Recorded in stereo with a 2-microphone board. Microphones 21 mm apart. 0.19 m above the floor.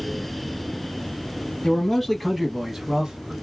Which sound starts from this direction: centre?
A man speaking, at 1.6 s.